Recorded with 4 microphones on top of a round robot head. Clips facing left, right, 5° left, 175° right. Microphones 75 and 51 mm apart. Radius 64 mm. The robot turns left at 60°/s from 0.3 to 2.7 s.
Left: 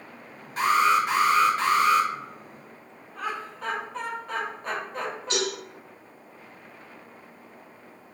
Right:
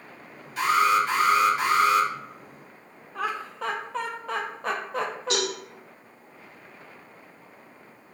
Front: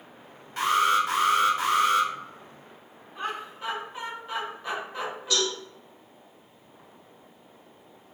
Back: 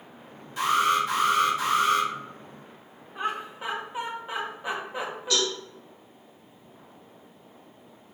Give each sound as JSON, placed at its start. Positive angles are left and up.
{"t": 0.6, "sound": "an alarm", "azimuth_deg": 45, "distance_m": 1.8}
{"t": 3.1, "sound": "laughter", "azimuth_deg": -95, "distance_m": 0.6}
{"t": 5.3, "sound": "a cowbell", "azimuth_deg": -65, "distance_m": 1.3}